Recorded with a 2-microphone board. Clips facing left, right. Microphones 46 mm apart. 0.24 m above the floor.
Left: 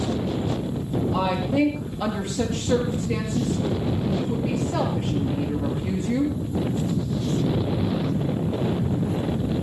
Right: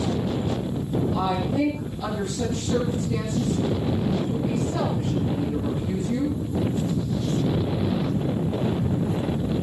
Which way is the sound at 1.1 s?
65° left (ahead or behind).